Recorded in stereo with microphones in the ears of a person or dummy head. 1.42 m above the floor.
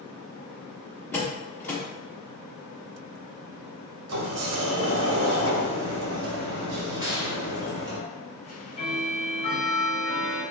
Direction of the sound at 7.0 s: 15° right (ahead or behind).